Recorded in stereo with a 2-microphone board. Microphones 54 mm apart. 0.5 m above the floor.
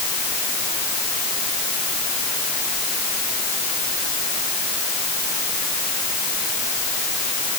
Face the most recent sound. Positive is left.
No sound to turn to.